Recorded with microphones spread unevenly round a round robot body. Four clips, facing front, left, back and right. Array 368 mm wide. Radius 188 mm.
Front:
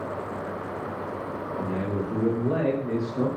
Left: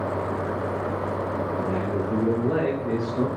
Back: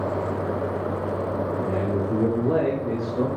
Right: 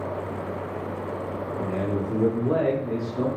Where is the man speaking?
140° right, 2.5 m; by 3.3 s 165° left, 3 m.